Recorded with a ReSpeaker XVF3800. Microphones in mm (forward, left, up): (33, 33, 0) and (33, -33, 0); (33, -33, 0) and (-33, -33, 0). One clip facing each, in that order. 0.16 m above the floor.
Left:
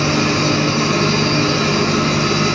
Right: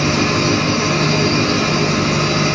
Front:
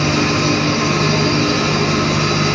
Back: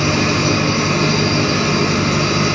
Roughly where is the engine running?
Right.